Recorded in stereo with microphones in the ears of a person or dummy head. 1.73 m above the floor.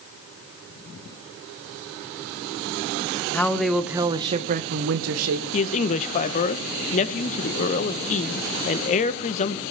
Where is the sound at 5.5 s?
35° left (ahead or behind), 1.5 m.